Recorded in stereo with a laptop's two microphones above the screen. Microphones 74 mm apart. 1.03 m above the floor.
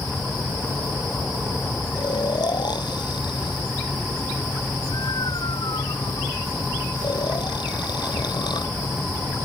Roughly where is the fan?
Left.